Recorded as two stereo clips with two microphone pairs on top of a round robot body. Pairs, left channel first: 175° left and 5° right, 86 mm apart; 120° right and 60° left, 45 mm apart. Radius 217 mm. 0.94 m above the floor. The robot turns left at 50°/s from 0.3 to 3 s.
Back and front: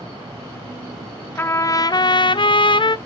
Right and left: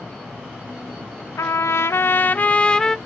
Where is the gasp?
No gasp in this recording.